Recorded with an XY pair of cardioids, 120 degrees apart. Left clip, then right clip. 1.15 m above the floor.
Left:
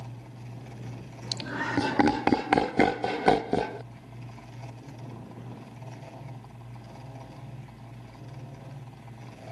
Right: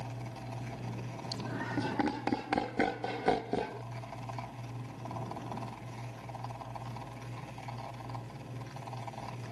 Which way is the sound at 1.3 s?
60° left.